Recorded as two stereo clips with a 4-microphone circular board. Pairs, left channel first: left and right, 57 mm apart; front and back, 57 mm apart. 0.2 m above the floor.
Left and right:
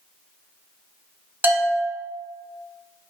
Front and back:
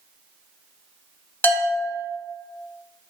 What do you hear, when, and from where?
1.4 s a bell: 45° right, 0.8 m